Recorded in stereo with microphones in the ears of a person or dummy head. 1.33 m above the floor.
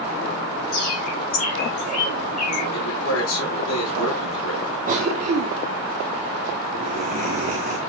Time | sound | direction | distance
0.7 | a bird | 50° left (ahead or behind) | 3.5 m
2.7 | a man speaking | 75° left (ahead or behind) | 4.5 m
4.9 | a cough | 40° right (ahead or behind) | 1.1 m